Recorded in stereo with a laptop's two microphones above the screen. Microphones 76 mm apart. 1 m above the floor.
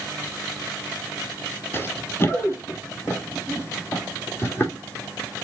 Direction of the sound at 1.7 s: 30° left (ahead or behind).